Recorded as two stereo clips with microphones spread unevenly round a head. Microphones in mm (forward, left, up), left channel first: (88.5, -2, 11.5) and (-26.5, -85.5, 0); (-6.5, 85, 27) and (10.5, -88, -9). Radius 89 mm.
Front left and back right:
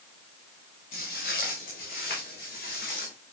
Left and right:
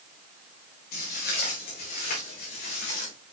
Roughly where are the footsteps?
Ahead left.